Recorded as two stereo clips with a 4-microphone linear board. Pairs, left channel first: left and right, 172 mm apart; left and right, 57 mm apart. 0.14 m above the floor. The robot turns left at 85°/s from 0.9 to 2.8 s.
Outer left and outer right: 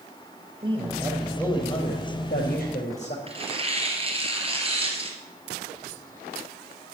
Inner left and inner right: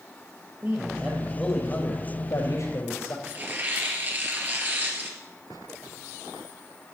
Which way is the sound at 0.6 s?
145° right.